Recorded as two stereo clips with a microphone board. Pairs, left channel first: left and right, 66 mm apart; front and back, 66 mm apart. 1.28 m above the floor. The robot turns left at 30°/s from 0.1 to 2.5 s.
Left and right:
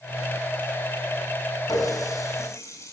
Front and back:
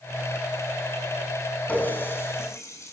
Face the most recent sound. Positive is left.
turn(degrees=45)